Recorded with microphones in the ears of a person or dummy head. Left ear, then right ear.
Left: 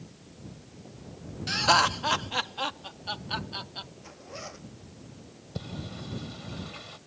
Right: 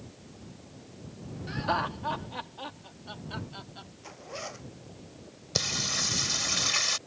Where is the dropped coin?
I don't hear a dropped coin.